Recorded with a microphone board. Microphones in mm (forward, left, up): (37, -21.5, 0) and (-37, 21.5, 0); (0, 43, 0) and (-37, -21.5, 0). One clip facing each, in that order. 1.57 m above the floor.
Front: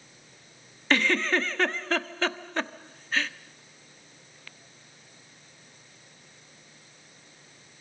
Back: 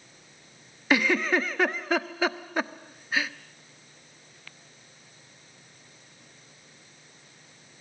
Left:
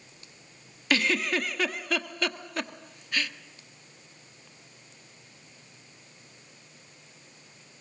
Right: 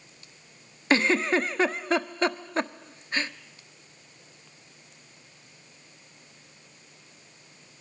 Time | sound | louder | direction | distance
0.9 | a giggle | back 1 dB, right 4 dB | 140° right | 1.1 m